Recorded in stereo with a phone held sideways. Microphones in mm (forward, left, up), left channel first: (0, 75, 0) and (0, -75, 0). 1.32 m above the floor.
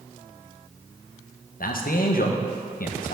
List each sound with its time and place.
1.6 s a man speaking: 75° left (ahead or behind), 0.7 m